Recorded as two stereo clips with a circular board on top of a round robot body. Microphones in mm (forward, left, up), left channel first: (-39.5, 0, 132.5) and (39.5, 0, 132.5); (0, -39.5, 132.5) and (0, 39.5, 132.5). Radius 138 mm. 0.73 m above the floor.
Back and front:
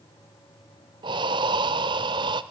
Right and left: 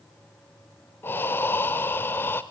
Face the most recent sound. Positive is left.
turn(degrees=-25)